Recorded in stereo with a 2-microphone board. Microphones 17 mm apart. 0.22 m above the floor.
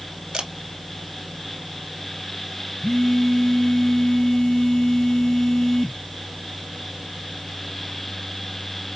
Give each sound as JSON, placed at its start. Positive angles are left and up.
{"t": 0.3, "sound": "a camera shutter", "side_deg": -50, "distance_m": 0.9}
{"t": 2.8, "sound": "a phone buzzing", "side_deg": 45, "distance_m": 1.5}